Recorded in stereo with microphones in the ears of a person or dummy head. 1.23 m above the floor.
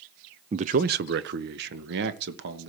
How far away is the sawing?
No sawing in this recording.